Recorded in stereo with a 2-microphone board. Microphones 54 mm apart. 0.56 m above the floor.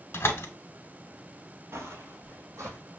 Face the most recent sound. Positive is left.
turn(degrees=-65)  # may be behind; listen again after turning